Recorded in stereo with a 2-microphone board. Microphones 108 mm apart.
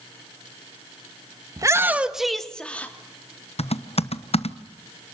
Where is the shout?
35° right (ahead or behind), 1.4 m; by 2.9 s 15° left (ahead or behind), 2.5 m.